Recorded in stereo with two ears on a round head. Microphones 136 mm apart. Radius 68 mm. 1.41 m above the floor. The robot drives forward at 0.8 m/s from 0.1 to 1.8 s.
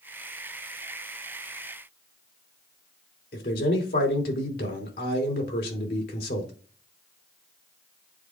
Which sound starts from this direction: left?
A man speaking, at 3.3 s.